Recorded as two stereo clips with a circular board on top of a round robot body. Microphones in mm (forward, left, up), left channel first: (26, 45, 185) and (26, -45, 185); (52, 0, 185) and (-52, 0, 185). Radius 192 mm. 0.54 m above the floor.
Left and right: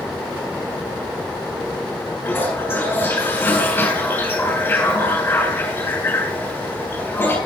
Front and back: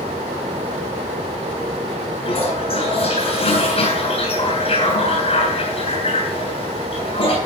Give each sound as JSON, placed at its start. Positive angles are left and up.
{"t": 2.2, "sound": "a toilet flushing", "azimuth_deg": 20, "distance_m": 8.0}